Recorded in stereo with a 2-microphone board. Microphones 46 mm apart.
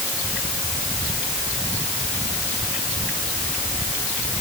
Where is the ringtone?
I don't hear a ringtone.